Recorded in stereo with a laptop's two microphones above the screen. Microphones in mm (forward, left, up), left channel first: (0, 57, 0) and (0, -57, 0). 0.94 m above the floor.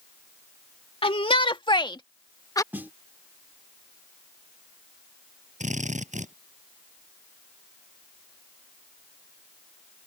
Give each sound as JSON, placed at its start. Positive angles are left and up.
{"t": 1.0, "sound": "a shout", "side_deg": 50}
{"t": 2.7, "sound": "a snare drum", "side_deg": -15}
{"t": 5.6, "sound": "a drill", "side_deg": -85}